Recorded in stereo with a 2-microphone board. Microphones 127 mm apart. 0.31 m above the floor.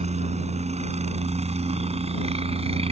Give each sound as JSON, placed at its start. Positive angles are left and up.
{"t": 0.0, "sound": "a helicopter", "side_deg": -55}